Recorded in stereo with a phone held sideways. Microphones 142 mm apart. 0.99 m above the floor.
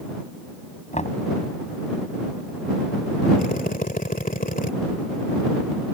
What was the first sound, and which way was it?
Knocking, 55° left (ahead or behind).